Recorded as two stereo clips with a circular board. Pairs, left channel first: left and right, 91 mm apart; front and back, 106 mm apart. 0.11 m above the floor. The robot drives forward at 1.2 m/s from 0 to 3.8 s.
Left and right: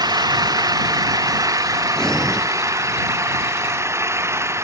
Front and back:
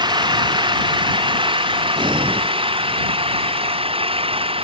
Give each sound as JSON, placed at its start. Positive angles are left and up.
{"t": 0.0, "sound": "an engine running", "azimuth_deg": -135}
{"t": 2.0, "sound": "breathing", "azimuth_deg": 170}